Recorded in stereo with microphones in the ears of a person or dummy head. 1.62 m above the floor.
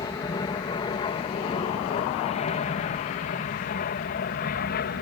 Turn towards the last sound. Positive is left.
turn(degrees=45)  # may be behind; listen again after turning